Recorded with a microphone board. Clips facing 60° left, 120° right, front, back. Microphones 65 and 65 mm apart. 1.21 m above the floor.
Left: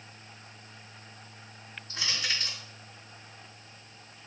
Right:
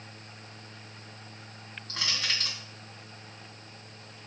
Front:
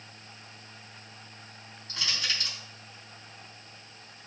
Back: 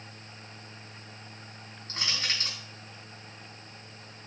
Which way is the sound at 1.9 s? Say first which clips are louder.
Even, even; 135° right.